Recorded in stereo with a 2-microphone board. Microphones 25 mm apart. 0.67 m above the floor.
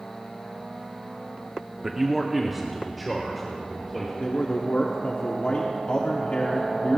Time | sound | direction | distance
1.8 | a man speaking | 15° right (ahead or behind) | 0.9 m
4.2 | a man speaking | 60° left (ahead or behind) | 1.2 m